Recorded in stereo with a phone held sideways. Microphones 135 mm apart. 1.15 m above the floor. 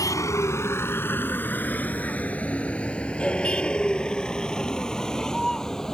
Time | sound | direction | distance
0.0 | a vehicle | 25° left (ahead or behind) | ?